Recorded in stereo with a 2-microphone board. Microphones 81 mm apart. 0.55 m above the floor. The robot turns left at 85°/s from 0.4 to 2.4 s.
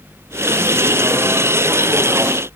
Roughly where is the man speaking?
No man speaking in this recording.